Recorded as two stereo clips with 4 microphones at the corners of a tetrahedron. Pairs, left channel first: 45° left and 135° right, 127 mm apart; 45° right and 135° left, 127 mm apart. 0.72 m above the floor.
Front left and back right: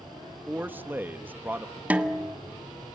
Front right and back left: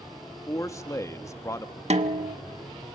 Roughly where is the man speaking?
Right.